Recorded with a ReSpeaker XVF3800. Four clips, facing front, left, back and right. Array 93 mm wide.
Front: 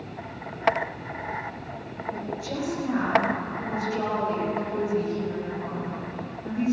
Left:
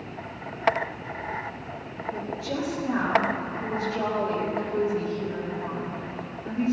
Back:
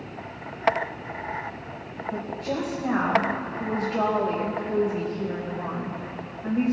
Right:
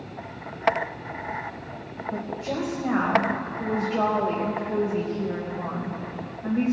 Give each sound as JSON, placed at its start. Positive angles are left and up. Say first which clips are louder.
{"t": 2.1, "sound": "a woman speaking", "louder": "right 1 dB, back 3 dB", "azimuth_deg": -130, "distance_m": 4.0}